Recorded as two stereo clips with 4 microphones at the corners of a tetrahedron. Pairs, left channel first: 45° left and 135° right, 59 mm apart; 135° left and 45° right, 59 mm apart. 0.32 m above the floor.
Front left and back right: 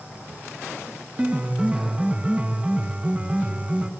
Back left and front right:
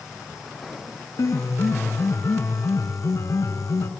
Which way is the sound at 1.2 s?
160° left.